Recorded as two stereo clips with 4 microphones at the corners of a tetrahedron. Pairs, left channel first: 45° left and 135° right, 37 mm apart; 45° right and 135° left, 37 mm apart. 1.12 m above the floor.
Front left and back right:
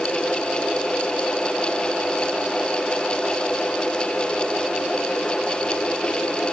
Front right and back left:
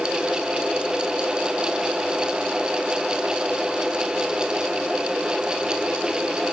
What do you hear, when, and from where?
Only background noise.